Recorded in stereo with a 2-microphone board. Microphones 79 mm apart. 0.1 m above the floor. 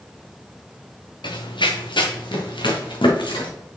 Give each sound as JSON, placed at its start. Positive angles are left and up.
{"t": 1.2, "sound": "running footsteps", "side_deg": 75, "distance_m": 1.1}